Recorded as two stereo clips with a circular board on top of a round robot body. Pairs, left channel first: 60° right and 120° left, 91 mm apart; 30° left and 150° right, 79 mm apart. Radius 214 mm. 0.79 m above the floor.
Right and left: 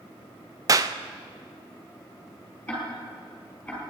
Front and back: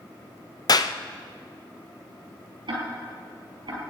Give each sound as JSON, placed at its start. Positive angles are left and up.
{"t": 0.7, "sound": "a clap", "azimuth_deg": 70, "distance_m": 0.5}
{"t": 2.7, "sound": "ticking", "azimuth_deg": -130, "distance_m": 4.5}